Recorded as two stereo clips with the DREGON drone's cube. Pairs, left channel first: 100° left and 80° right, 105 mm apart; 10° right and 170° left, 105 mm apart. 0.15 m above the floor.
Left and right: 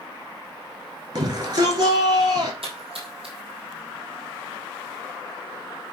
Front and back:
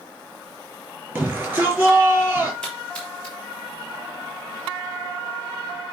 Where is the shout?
120° right, 4.5 m.